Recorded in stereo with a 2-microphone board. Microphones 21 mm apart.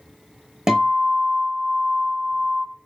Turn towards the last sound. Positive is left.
turn(degrees=-20)  # may be behind; listen again after turning